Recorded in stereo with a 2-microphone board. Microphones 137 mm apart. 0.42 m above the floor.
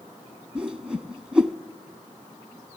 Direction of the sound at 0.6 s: 5° right (ahead or behind).